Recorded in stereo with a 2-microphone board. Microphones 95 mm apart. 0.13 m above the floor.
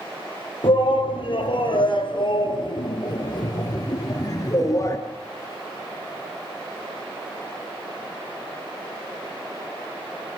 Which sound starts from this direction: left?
A shout, at 0.6 s.